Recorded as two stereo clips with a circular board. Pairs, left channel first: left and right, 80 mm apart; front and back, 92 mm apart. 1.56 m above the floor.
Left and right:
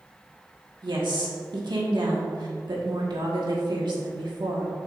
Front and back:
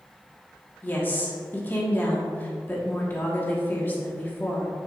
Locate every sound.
0.8 s a woman speaking: 70° right, 1.8 m